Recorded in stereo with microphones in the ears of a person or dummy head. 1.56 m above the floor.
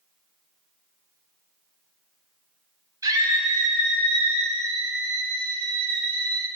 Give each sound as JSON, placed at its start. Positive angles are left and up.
{"t": 3.0, "sound": "a scream", "side_deg": -15, "distance_m": 3.0}